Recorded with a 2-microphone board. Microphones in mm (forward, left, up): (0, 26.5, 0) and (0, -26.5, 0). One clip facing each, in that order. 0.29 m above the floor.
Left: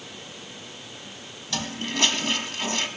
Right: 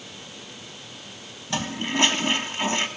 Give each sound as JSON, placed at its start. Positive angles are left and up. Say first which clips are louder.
{"t": 1.5, "sound": "a toilet flushing", "louder": "right 3 dB", "side_deg": -25, "distance_m": 1.3}